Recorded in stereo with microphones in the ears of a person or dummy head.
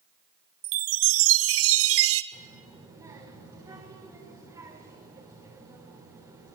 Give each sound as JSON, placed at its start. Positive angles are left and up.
{"t": 0.6, "sound": "a chime", "side_deg": -75, "distance_m": 0.9}
{"t": 2.3, "sound": "a child speaking", "side_deg": -25, "distance_m": 2.5}